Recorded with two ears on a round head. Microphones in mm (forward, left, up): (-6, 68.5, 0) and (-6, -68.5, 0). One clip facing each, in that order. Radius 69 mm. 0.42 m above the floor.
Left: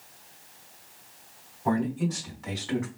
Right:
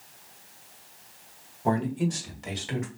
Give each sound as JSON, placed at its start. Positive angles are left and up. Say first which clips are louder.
{"t": 1.6, "sound": "a man speaking", "louder": "even", "side_deg": -35, "distance_m": 1.7}